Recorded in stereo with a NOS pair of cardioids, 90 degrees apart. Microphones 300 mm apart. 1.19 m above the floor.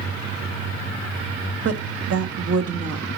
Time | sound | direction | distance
1.6 | a woman speaking | 50° right | 1.6 m